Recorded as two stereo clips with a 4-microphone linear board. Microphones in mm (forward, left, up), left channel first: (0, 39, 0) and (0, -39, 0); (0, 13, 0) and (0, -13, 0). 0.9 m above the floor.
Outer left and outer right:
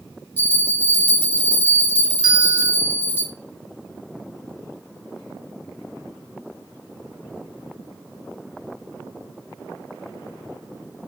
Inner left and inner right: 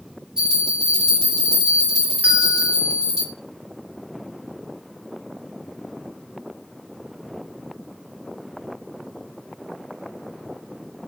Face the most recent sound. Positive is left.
turn(degrees=-75)  # may be behind; listen again after turning